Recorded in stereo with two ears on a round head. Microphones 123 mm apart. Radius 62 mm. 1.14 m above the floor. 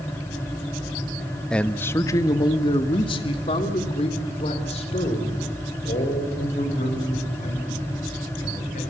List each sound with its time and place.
1.5 s a man speaking: 5° left (ahead or behind), 1.0 m; by 8.8 s 55° left (ahead or behind), 7 m